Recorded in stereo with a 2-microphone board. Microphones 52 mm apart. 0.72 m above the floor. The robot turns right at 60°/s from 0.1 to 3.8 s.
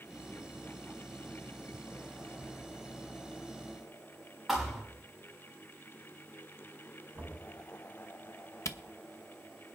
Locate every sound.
4.5 s a thud: centre (ahead or behind), 4.5 m
7.2 s knocking: 40° right (ahead or behind), 3.5 m
8.7 s a camera shutter: 75° left (ahead or behind), 0.7 m